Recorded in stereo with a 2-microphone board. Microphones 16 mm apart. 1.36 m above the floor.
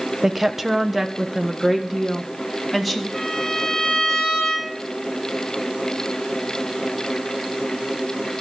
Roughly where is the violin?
Left.